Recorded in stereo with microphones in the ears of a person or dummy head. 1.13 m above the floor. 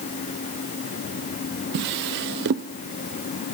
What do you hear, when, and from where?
1.7 s a drawer: 60° right (ahead or behind), 0.7 m